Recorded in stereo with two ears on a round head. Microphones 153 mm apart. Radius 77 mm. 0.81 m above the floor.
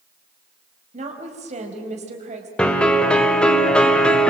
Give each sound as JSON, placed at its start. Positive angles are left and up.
{"t": 0.9, "sound": "a woman speaking", "side_deg": -45, "distance_m": 5.0}
{"t": 2.6, "sound": "a piano", "side_deg": 5, "distance_m": 2.0}